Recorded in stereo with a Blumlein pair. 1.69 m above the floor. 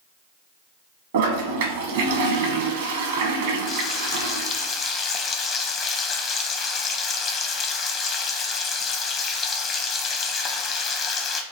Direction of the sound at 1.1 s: 55° right.